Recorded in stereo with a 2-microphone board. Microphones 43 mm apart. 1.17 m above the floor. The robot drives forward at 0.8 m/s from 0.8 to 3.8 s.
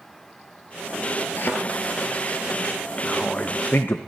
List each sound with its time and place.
1.4 s a thud: 50° left (ahead or behind), 1.7 m
3.0 s a man speaking: 25° left (ahead or behind), 1.1 m; by 4.0 s 55° left (ahead or behind), 0.6 m